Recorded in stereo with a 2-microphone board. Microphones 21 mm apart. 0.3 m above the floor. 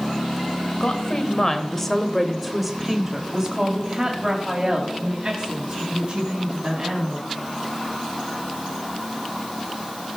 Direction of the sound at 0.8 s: 35° left (ahead or behind).